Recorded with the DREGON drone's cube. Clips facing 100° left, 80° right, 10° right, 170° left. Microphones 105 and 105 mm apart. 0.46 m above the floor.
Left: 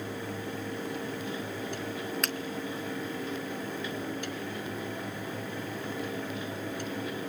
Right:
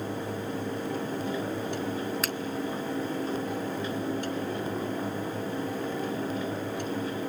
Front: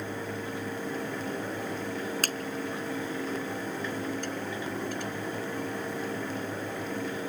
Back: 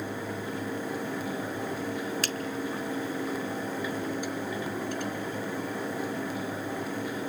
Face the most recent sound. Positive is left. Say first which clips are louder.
# right 2 dB, even
turn(degrees=5)